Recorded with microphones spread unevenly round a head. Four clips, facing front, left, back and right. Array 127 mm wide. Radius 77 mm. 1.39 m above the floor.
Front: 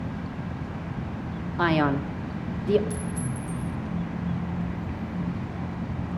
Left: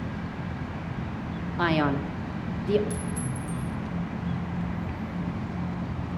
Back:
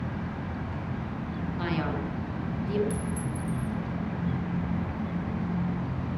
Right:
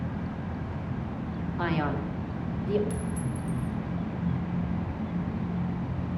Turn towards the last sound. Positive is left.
turn(degrees=-175)